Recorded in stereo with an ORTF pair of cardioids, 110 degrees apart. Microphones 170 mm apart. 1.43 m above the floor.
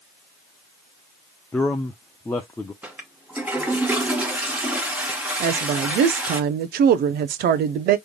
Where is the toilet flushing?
10° right, 1.4 m.